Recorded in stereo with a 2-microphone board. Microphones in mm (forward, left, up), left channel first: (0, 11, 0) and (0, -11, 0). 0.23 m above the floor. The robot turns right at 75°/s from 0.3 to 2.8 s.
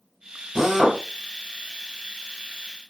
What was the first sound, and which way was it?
A drill, 50° right.